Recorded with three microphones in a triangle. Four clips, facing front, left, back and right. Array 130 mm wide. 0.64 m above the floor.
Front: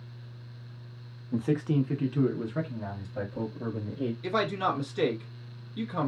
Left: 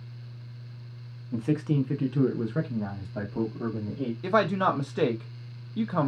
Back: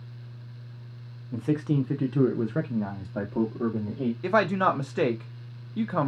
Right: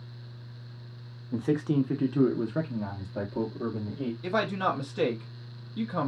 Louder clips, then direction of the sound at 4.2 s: Left 5 dB, back 6 dB; 150° left.